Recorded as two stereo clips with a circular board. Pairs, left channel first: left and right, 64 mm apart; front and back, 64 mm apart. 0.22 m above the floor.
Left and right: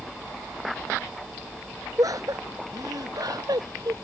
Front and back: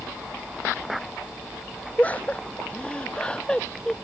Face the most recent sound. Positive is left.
turn(degrees=-80)